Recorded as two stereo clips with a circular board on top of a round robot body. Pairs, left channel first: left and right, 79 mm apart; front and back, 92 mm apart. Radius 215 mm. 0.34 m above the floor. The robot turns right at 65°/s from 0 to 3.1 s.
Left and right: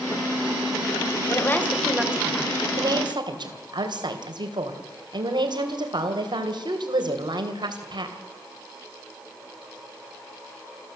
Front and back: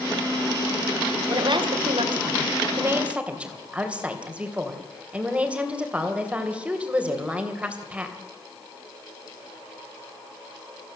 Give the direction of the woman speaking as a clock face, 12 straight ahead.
7 o'clock.